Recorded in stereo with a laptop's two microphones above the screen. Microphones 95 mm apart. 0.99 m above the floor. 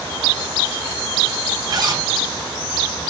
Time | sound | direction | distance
1.7 | a zipper | 45° right (ahead or behind) | 3 m